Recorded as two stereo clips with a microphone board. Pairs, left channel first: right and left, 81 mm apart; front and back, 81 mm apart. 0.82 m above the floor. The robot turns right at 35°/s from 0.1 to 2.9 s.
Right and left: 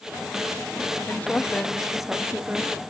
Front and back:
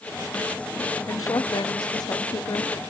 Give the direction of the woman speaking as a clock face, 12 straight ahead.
1 o'clock.